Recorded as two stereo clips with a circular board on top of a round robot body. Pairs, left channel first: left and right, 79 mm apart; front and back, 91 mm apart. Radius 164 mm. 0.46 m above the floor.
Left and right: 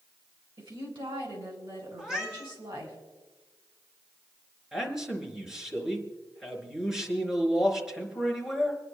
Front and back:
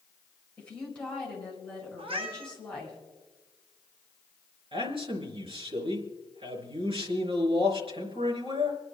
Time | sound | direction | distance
0.6 | a woman speaking | 80° right | 6 m
2.0 | a cat meowing | 170° right | 1.8 m
4.7 | a man speaking | 170° right | 4 m